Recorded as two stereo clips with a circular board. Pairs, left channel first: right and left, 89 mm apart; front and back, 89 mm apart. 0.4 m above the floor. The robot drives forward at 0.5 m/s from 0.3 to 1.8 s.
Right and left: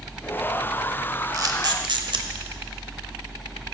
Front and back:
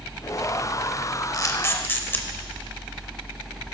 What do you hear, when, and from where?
1.3 s a camera shutter: 45° left, 0.7 m; by 2.3 s 65° left, 0.6 m